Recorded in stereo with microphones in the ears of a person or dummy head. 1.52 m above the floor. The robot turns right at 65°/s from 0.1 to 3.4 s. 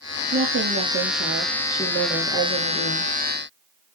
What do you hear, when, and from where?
0.3 s a woman speaking: 115° right, 1.7 m; by 3.1 s 65° left, 1.7 m